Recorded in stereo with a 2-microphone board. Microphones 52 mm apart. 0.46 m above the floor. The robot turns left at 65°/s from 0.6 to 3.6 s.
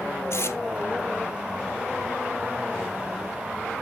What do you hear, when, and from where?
0.3 s tape being pulled: 50° left (ahead or behind), 2 m